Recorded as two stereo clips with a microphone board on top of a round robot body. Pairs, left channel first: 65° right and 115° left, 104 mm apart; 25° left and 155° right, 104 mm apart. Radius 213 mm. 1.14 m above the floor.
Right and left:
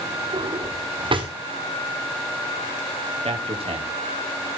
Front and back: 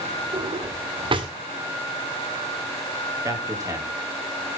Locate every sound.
0.3 s a drawer: 155° left, 1.8 m
3.2 s a man speaking: 140° left, 3 m